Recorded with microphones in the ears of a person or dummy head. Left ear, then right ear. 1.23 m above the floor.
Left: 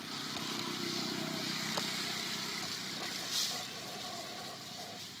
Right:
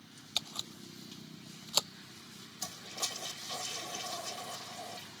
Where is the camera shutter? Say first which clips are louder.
Right 3 dB; 80° right.